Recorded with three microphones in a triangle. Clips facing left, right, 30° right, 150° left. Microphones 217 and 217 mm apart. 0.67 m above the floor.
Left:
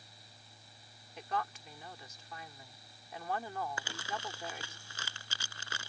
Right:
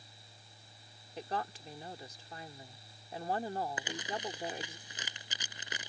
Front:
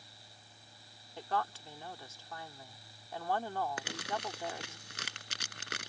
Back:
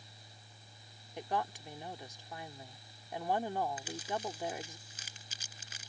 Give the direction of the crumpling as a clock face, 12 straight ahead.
1 o'clock.